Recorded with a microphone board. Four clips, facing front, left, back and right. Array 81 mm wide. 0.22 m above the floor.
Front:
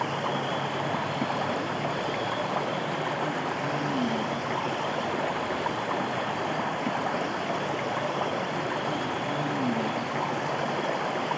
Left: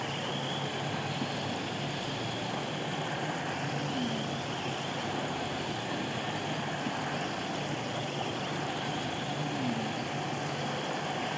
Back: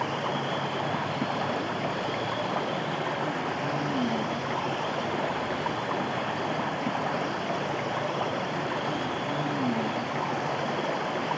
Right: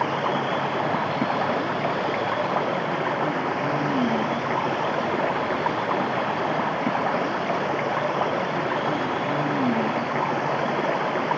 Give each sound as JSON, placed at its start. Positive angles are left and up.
{"t": 0.0, "sound": "running water", "azimuth_deg": -85}